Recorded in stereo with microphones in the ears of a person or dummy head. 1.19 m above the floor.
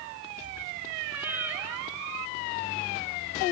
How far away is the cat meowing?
About 2 m.